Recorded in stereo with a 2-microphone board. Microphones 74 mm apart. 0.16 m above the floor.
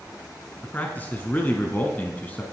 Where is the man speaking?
25° left (ahead or behind), 1.5 m.